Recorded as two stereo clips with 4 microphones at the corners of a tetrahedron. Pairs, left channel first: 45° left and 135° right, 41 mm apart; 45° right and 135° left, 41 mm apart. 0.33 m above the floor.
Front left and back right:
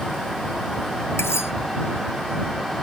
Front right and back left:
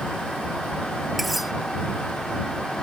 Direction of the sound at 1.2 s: 50° left.